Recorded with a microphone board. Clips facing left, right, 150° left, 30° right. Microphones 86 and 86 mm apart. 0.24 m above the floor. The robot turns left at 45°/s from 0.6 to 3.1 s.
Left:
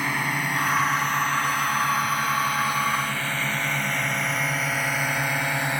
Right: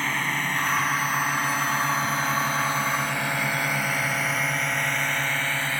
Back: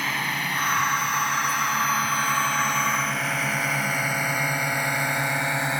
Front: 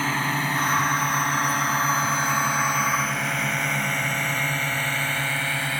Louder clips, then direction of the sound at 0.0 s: Left 1 dB, front 3 dB; 15° left.